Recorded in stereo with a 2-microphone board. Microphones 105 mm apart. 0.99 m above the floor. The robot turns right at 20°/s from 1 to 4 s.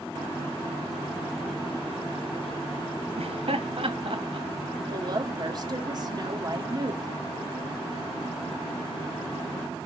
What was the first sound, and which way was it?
Laughter, 65° right (ahead or behind).